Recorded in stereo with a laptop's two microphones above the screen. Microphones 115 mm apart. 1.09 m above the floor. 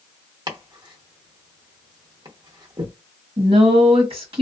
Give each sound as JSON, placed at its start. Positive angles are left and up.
{"t": 0.5, "sound": "chopping", "side_deg": -40, "distance_m": 0.9}
{"t": 3.4, "sound": "a woman speaking", "side_deg": -50, "distance_m": 1.4}